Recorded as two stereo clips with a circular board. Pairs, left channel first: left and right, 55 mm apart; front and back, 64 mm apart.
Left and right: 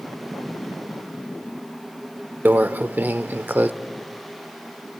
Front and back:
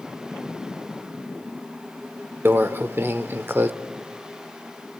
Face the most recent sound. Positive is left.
turn(degrees=-135)